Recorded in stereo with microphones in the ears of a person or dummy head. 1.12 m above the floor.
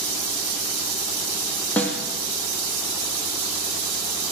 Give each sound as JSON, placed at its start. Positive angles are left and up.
{"t": 1.8, "sound": "a snare drum", "side_deg": 10, "distance_m": 2.5}